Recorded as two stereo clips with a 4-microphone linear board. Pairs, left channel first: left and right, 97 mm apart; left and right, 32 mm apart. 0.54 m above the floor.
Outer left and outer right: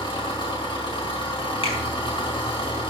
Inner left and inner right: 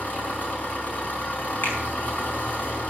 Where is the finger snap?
60° left (ahead or behind), 5 m.